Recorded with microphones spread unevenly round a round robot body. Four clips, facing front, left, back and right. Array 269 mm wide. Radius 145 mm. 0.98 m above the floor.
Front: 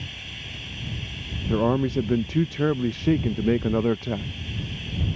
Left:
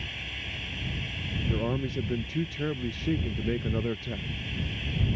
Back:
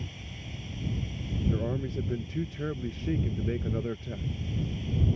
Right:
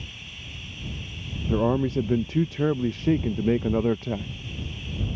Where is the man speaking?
35° right.